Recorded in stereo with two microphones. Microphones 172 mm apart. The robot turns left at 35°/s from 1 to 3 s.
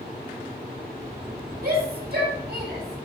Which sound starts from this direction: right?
A shout, at 1.6 s.